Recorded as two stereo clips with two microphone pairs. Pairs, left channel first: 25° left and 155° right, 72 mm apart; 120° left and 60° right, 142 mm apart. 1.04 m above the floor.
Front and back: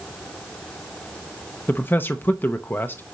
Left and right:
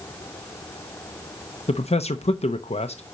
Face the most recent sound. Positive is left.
turn(degrees=85)